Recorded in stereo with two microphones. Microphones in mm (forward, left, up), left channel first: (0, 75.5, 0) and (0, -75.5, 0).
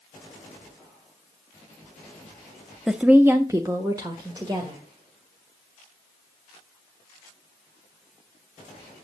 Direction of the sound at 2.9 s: Centre (ahead or behind).